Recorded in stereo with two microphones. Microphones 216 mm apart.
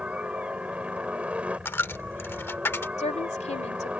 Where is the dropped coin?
10° left (ahead or behind).